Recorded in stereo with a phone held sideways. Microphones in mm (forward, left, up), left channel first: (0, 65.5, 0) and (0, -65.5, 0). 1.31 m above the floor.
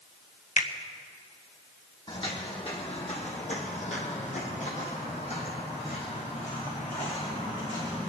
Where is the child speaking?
I don't hear a child speaking.